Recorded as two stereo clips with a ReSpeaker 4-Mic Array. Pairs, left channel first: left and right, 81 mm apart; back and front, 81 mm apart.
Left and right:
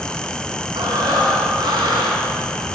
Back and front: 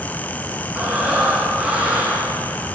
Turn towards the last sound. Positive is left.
turn(degrees=-75)